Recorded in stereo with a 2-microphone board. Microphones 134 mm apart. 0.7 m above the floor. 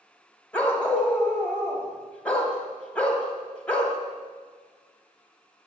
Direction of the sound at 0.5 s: 10° left (ahead or behind).